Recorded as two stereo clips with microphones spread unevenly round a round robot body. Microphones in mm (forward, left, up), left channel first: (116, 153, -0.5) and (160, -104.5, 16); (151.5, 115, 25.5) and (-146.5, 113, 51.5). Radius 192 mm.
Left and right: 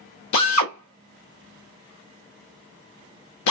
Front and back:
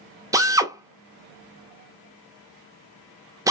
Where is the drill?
100° left, 0.8 m.